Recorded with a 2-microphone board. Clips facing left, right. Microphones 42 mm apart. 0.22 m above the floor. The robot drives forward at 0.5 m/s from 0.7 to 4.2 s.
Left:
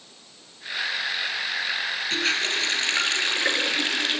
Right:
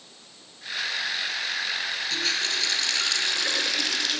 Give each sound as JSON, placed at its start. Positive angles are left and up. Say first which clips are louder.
{"t": 2.1, "sound": "a running tap", "louder": "left 4 dB", "side_deg": 40, "distance_m": 3.0}